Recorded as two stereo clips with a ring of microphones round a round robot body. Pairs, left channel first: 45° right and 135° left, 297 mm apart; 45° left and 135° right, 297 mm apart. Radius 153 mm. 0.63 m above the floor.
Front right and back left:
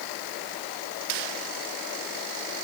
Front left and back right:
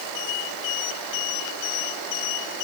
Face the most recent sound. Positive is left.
No sound to turn to.